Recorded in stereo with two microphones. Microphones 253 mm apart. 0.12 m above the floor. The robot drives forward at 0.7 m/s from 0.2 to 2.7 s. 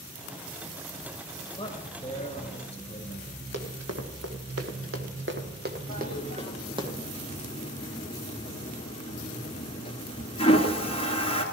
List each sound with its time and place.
1.6 s a man speaking: 20° left (ahead or behind), 1.8 m; by 3.4 s 25° left (ahead or behind), 1.5 m
3.5 s running footsteps: 85° right, 2.5 m; by 6.9 s 15° right (ahead or behind), 2.5 m
5.9 s a toilet flushing: 20° left (ahead or behind), 1.6 m